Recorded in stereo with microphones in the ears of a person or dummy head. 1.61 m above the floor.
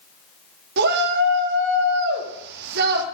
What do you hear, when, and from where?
0.8 s a shout: 60° right (ahead or behind), 1.5 m